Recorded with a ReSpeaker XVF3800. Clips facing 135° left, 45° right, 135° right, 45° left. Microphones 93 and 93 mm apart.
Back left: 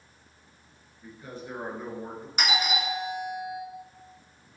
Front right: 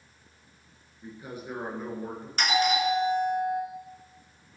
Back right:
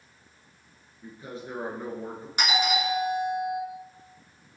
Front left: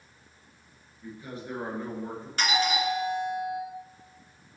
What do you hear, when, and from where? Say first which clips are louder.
1.0 s a man speaking: front right 1 dB, even; 100° right, 1.5 m; by 2.3 s 175° left, 1.3 m
2.4 s a doorbell: front right 4 dB, even; 165° right, 1.5 m